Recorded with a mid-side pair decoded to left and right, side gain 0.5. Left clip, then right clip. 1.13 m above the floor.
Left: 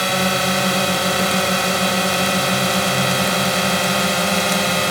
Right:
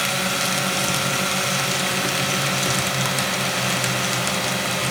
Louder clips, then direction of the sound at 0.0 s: Left 4 dB; 50° left.